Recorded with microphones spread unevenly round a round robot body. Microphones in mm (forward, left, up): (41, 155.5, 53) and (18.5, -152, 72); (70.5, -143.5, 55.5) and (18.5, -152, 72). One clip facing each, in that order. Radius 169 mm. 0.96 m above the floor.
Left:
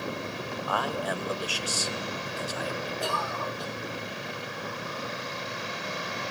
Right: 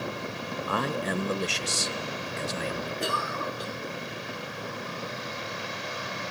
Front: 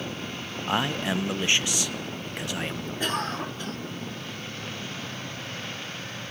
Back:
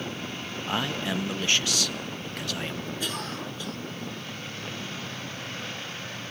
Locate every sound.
0.7 s a man speaking: 35° right, 0.9 m
3.0 s a cough: 25° right, 1.3 m